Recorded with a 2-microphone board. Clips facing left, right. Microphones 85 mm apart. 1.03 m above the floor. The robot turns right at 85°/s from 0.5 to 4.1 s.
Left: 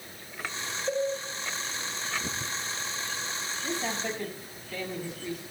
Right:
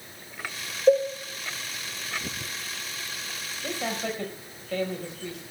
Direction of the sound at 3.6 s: 55° right (ahead or behind).